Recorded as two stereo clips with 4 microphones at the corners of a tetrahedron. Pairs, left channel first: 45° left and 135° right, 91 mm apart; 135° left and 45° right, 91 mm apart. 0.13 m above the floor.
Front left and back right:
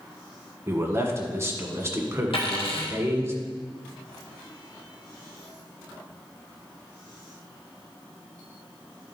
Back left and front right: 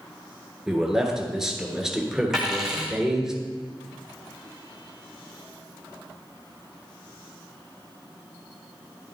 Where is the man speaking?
125° right, 1.4 m.